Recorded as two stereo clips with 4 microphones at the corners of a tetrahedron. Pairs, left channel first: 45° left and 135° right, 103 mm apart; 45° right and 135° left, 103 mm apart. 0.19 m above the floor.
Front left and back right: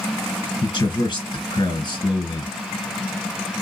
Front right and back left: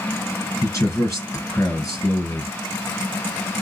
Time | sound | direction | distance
0.6 | a man speaking | 15° left | 3 m